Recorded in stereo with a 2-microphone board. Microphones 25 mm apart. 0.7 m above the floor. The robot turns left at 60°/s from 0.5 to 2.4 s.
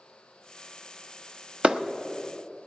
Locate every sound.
1.6 s a clap: 45° right (ahead or behind), 0.7 m; by 1.8 s 40° right (ahead or behind), 0.7 m